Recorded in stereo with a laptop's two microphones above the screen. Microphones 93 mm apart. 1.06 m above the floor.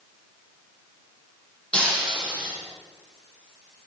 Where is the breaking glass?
10° left (ahead or behind), 7.5 m.